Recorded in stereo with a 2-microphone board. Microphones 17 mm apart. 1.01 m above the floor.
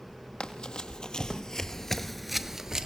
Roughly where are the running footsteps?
Left.